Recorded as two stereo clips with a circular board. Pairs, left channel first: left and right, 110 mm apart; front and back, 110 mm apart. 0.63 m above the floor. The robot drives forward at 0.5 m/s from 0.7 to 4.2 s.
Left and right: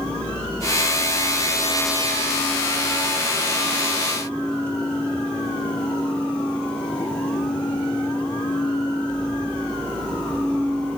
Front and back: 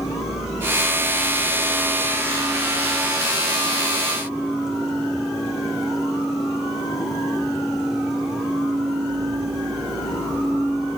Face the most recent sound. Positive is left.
No sound to turn to.